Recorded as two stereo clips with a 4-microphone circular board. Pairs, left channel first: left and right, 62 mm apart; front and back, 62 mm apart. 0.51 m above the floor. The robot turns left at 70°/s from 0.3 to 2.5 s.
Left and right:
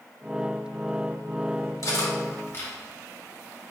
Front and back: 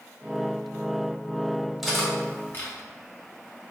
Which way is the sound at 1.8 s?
95° left.